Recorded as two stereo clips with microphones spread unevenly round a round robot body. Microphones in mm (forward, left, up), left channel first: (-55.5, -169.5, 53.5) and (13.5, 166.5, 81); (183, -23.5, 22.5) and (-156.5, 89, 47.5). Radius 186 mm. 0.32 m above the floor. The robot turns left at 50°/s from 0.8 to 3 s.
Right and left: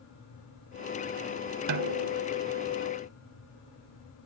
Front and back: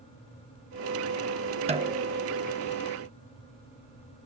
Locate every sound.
1.7 s a snare drum: 90° left; by 2.3 s 60° left